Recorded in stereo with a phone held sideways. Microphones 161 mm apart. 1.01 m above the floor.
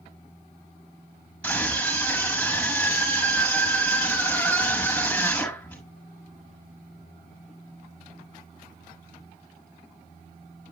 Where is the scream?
5° left (ahead or behind), 7 m.